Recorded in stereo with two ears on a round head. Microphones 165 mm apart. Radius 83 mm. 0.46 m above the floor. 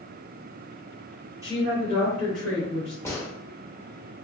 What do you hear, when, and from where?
1.4 s a woman speaking: 20° right (ahead or behind), 1.1 m; by 3.0 s 35° left (ahead or behind), 2.5 m
3.0 s a gunshot: 15° left (ahead or behind), 0.9 m